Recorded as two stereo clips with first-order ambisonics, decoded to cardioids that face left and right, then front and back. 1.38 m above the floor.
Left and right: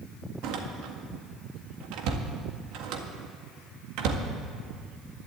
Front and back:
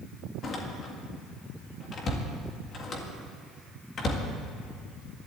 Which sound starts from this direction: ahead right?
A door slam, at 0.4 s.